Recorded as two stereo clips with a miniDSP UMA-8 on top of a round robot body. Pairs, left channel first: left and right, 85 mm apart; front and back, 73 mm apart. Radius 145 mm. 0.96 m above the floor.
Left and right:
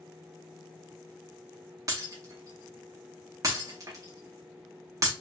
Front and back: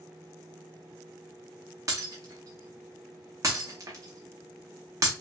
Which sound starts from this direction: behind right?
Breaking glass, at 1.9 s.